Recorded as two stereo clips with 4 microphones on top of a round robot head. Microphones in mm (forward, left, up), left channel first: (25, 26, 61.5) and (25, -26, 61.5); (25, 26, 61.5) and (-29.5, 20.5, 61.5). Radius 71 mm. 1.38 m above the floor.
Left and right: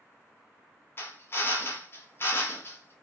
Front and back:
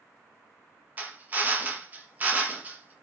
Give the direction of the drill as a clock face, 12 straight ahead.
8 o'clock.